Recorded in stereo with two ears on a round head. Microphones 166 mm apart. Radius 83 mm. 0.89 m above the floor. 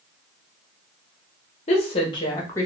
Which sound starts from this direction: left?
A woman speaking, at 1.7 s.